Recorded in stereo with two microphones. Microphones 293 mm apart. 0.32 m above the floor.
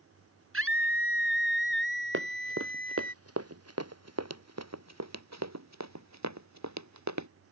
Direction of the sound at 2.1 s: 45° right (ahead or behind).